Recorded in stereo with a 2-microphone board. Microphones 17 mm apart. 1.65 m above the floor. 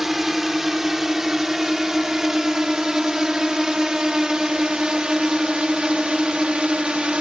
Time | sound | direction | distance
0.0 | a drone | 25° right (ahead or behind) | ?